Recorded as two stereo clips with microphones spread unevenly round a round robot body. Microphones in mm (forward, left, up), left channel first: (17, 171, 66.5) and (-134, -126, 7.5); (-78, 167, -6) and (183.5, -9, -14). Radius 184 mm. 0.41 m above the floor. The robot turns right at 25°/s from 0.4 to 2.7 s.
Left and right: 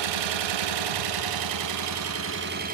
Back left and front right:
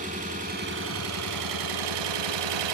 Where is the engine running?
105° right, 0.9 m; by 2.8 s 50° right, 0.9 m.